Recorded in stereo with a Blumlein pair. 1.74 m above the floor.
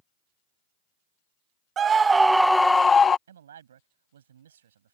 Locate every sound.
1.8 s a scream: 25° right; by 3.2 s 20° left
3.3 s a man speaking: 65° right